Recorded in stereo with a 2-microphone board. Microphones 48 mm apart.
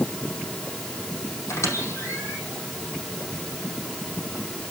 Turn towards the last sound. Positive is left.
turn(degrees=75)  # may be behind; listen again after turning